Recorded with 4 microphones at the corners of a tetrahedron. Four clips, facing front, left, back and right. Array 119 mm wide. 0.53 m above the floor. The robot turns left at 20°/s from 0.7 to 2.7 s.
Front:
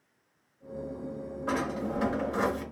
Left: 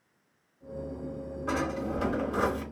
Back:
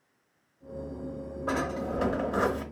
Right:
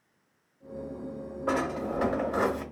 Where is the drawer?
110° right, 1.2 m; by 2.6 s 135° right, 1.2 m.